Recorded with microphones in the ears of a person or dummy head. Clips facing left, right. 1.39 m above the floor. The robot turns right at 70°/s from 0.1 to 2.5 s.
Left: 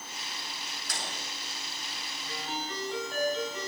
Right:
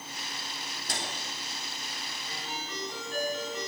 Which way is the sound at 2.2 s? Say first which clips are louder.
Left 5 dB; 50° left (ahead or behind).